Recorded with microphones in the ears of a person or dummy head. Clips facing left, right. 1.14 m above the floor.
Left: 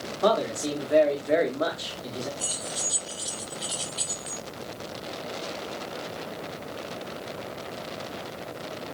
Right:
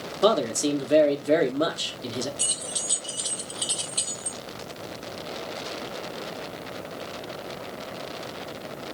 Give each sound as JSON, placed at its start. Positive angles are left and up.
{"t": 0.2, "sound": "a man speaking", "side_deg": -35, "distance_m": 0.7}
{"t": 2.4, "sound": "keys jangling", "side_deg": -40, "distance_m": 1.3}